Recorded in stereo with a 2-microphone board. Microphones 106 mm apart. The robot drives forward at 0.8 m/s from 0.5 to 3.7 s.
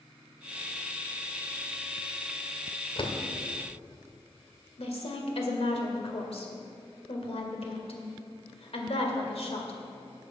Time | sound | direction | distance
3.0 | a door slam | 50° left (ahead or behind) | 1.2 m
4.8 | a woman speaking | 65° left (ahead or behind) | 1.9 m